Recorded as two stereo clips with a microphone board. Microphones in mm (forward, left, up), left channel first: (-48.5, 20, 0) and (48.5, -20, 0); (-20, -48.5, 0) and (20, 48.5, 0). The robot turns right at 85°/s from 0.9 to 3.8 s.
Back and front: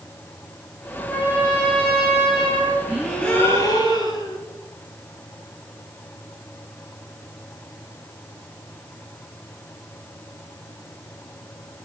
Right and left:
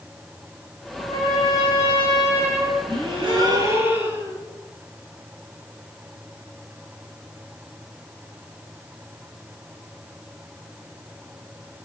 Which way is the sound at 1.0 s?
125° right.